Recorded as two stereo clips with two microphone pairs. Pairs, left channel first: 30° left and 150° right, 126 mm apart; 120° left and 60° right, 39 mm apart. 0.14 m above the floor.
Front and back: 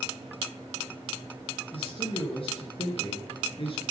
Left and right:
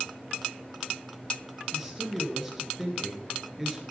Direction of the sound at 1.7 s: 25° left.